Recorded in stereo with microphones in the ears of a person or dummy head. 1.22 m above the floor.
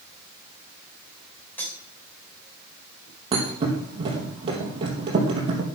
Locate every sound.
1.6 s cutlery clinking: 10° left (ahead or behind), 3.5 m
3.3 s a thud: 30° right (ahead or behind), 4 m